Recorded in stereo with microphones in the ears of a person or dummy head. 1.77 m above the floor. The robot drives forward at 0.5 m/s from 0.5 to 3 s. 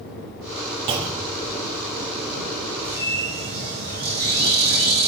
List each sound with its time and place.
0.9 s a clunk: 25° right (ahead or behind), 0.5 m
2.8 s a bird: 50° right (ahead or behind), 1.9 m